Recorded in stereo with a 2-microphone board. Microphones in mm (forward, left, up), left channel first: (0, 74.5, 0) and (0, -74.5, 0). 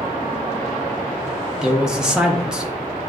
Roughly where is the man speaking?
Centre.